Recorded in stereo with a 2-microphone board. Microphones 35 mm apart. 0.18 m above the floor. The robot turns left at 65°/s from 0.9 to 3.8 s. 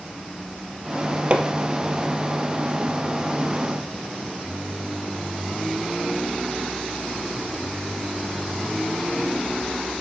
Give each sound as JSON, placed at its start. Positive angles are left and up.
{"t": 1.3, "sound": "hammering", "side_deg": -35, "distance_m": 2.5}